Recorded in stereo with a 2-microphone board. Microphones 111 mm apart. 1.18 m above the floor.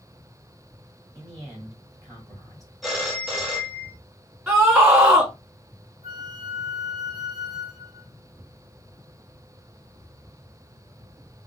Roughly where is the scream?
Centre.